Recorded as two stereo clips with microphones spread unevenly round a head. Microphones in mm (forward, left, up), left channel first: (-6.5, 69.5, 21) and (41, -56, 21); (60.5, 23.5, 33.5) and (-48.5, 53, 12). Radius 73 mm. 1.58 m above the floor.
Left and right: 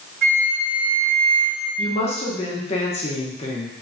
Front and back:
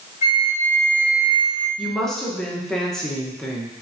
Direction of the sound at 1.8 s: 70° left.